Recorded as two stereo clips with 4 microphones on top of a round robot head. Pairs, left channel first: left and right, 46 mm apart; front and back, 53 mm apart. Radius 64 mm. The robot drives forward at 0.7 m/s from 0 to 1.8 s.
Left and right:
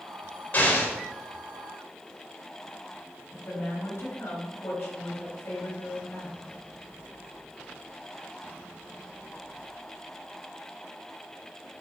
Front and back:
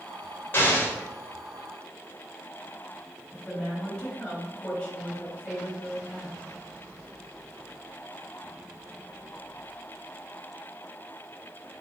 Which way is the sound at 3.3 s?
75° left.